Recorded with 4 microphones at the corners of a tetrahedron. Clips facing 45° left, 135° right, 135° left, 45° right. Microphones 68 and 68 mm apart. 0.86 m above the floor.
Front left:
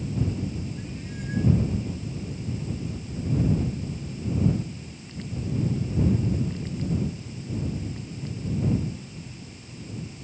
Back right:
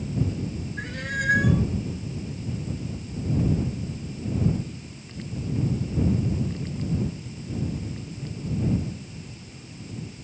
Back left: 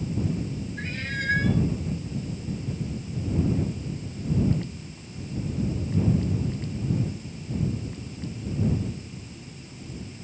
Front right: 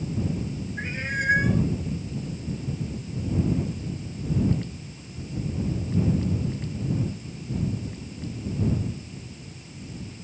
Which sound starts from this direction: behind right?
A cat meowing, at 0.8 s.